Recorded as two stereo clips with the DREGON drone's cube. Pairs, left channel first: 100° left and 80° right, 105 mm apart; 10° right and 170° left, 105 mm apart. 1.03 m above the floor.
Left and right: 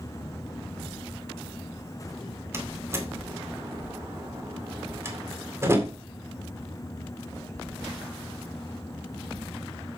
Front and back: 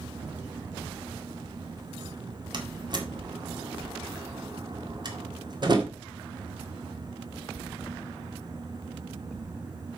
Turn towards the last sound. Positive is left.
turn(degrees=-145)